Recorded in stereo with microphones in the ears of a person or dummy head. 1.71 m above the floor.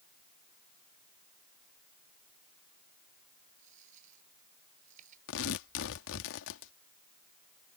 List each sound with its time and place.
3.6 s a dropped coin: 45° right (ahead or behind)
5.3 s tearing paper: 70° left (ahead or behind)